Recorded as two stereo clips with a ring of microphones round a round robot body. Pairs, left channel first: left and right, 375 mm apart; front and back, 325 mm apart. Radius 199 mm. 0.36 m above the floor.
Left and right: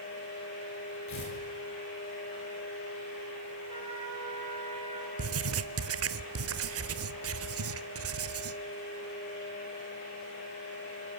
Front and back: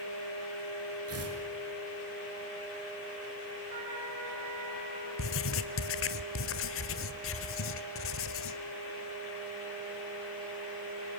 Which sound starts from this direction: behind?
A trumpet, at 3.7 s.